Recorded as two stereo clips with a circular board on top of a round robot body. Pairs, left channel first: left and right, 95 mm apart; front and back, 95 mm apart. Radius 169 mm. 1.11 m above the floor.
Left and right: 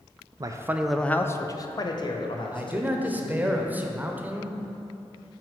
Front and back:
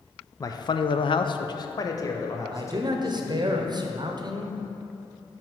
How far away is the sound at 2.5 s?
About 0.9 m.